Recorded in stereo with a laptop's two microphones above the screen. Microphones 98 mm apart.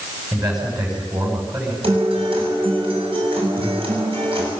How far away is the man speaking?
About 7 m.